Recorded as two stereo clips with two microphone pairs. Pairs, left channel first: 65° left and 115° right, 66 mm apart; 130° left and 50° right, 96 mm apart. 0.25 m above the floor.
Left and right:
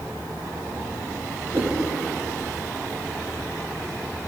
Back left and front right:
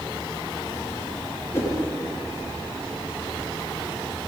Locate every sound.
1.5 s a whoosh: 170° right, 4.5 m